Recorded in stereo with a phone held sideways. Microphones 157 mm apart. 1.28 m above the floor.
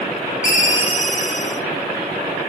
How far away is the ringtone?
About 1.4 m.